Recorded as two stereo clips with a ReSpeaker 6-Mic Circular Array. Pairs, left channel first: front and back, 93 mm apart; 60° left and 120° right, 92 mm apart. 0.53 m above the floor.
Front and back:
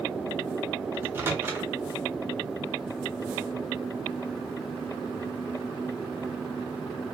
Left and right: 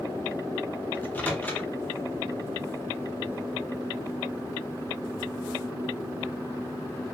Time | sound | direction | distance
0.9 | a microwave | 125° left | 0.6 m